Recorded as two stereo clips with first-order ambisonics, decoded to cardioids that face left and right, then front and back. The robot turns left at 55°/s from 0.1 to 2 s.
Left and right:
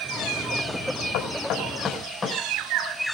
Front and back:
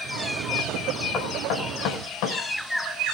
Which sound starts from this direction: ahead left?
Knocking, at 1.1 s.